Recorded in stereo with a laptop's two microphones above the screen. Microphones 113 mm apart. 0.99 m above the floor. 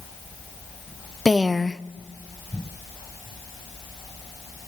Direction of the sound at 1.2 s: 5° left (ahead or behind).